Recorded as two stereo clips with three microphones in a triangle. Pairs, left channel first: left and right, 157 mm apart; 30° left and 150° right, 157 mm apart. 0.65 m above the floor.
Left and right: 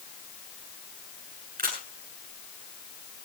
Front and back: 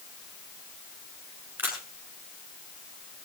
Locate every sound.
1.6 s a camera shutter: 70° right, 8 m